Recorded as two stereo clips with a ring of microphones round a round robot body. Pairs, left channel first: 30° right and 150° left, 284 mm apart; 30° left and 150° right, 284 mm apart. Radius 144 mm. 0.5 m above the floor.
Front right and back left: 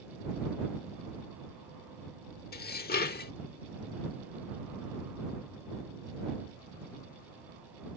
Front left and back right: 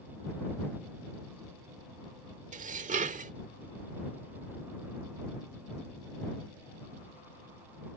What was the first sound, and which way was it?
Dishes clattering, 85° right.